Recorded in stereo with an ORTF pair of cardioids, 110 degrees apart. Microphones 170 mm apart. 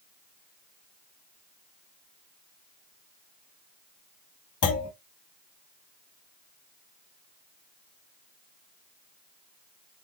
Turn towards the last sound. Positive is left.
turn(degrees=55)